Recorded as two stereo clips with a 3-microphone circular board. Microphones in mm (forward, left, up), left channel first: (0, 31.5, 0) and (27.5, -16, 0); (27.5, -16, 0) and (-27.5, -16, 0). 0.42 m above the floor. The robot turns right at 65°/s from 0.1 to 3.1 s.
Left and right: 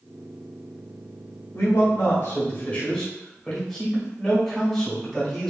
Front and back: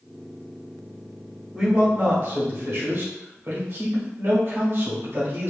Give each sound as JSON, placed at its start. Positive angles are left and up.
{"t": 1.5, "sound": "a man speaking", "azimuth_deg": 100, "distance_m": 1.9}